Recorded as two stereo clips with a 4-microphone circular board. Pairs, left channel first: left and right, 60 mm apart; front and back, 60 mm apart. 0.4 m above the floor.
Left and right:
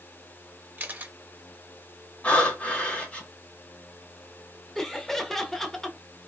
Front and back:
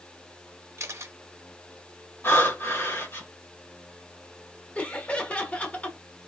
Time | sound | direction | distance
0.8 | a camera shutter | 145° right | 0.7 m
2.2 | breathing | 30° left | 1.8 m
4.8 | laughter | 20° left | 0.8 m